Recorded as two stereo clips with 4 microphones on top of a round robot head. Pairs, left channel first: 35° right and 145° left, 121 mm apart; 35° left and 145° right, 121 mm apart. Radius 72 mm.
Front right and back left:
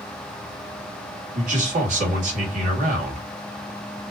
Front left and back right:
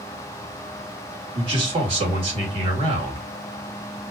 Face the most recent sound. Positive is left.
turn(degrees=170)